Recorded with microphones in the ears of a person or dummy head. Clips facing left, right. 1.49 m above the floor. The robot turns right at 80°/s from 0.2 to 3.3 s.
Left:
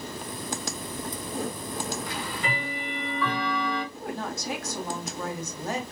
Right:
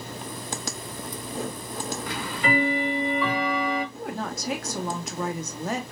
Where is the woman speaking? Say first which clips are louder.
Right 1 dB; 60° right (ahead or behind), 1.2 m.